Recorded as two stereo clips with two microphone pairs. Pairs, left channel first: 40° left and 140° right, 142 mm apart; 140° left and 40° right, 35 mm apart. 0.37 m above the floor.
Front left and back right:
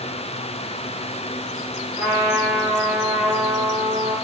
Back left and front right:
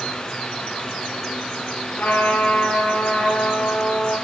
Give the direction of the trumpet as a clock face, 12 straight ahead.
7 o'clock.